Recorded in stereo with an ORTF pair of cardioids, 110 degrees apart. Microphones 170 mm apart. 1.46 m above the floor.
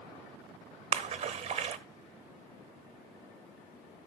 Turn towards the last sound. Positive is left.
turn(degrees=-40)